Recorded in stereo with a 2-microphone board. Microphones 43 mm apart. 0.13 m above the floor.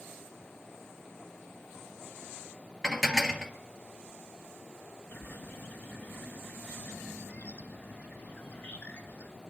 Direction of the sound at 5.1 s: 40° left (ahead or behind).